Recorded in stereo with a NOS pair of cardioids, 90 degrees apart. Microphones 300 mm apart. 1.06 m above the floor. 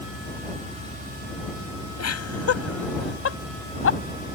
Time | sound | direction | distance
2.0 | laughter | 55° left | ?